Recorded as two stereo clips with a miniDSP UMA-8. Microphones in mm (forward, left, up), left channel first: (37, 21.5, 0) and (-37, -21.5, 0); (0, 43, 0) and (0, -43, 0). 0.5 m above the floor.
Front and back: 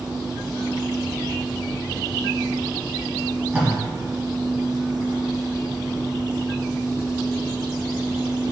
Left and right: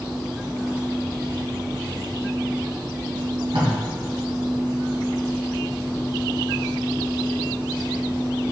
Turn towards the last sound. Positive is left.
turn(degrees=-80)